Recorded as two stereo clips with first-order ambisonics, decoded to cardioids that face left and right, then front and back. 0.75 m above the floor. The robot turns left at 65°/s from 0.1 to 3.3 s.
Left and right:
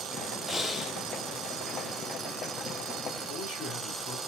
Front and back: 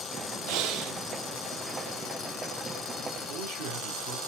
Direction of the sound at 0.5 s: Straight behind.